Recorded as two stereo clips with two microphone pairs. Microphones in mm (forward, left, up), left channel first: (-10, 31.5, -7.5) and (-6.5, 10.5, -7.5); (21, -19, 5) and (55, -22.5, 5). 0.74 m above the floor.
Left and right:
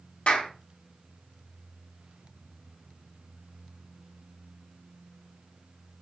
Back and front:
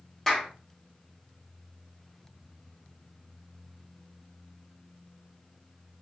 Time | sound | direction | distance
0.3 | a clap | 95° left | 1.4 m